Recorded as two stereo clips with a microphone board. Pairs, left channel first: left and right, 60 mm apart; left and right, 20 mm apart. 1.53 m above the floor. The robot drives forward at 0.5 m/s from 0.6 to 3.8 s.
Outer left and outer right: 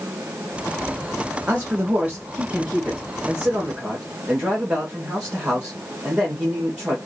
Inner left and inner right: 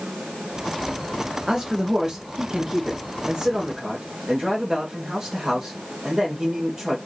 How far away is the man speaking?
About 1.5 m.